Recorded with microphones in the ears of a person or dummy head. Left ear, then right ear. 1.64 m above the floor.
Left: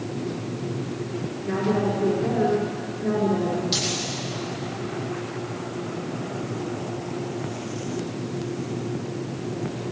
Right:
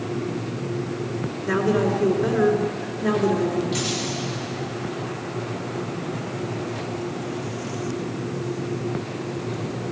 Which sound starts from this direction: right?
A woman speaking, at 1.4 s.